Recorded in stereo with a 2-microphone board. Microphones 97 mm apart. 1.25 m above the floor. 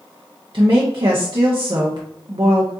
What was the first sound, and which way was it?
A woman speaking, 55° right (ahead or behind).